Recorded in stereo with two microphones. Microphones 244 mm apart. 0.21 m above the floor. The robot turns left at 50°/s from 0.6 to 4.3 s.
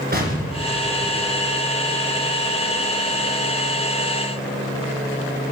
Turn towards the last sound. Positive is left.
turn(degrees=135)